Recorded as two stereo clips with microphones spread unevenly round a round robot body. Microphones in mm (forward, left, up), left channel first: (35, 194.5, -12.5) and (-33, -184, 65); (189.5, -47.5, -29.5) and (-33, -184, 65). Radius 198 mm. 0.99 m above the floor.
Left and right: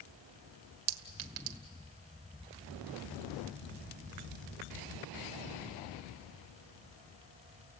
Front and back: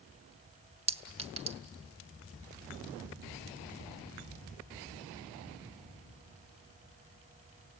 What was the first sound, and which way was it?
A clink, 80° right.